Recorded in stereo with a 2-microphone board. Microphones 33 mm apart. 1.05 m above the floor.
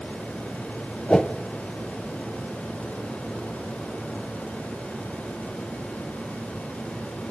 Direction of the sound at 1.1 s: 25° left (ahead or behind).